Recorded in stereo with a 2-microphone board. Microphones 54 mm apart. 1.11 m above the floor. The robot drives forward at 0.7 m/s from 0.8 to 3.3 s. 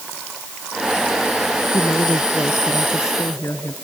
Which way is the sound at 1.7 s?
65° left (ahead or behind).